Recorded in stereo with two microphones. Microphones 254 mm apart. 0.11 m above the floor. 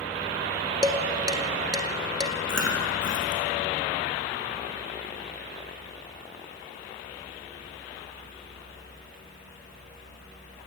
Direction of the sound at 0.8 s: 15° right (ahead or behind).